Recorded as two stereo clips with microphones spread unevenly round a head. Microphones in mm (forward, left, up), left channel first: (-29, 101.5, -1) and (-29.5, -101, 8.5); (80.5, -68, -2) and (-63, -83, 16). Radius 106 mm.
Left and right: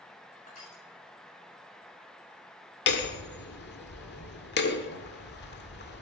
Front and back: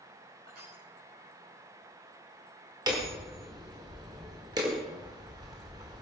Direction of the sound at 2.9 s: 120° left.